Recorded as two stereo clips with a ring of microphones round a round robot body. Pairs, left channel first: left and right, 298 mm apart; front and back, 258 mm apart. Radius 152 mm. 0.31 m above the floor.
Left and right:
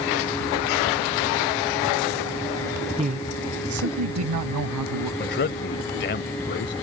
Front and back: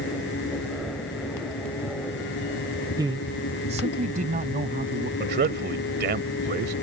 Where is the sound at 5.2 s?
140° left.